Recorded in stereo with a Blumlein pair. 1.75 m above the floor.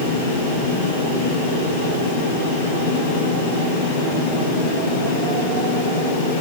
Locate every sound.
0.0 s a fan: 50° left, 7.5 m